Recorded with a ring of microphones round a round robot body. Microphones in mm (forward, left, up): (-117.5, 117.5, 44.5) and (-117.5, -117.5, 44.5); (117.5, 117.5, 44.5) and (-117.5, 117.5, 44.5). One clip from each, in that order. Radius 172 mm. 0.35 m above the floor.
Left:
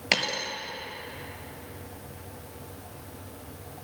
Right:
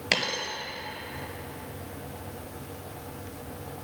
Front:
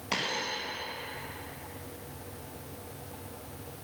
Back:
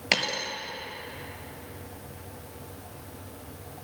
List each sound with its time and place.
0.1 s a dropped coin: 175° left, 1.3 m